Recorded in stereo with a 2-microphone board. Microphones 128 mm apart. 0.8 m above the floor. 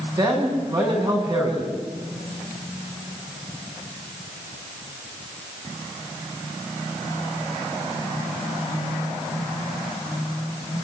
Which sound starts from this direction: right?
A man speaking, at 0.2 s.